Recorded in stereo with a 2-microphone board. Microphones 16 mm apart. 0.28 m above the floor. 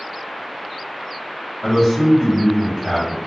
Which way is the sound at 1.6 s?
10° right (ahead or behind).